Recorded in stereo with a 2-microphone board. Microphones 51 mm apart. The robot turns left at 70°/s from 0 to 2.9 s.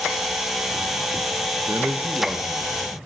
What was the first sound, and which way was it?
A man speaking, 110° right.